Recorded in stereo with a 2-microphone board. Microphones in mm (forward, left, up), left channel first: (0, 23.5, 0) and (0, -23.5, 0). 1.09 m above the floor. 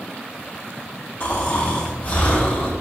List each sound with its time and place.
1.2 s snoring: 50° left (ahead or behind), 2.5 m